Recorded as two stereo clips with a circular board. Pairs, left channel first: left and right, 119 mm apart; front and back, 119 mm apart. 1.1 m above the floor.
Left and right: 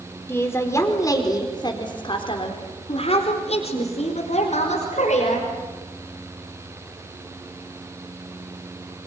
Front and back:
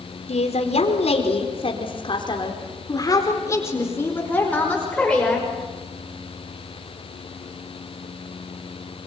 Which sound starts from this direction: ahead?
A woman speaking, at 0.3 s.